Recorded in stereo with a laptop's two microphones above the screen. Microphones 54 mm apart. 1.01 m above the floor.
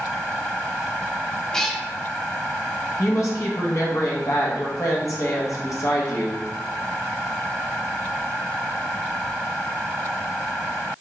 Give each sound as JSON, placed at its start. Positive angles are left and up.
{"t": 1.5, "sound": "a cat meowing", "side_deg": 10, "distance_m": 0.5}
{"t": 3.0, "sound": "a woman speaking", "side_deg": 70, "distance_m": 0.8}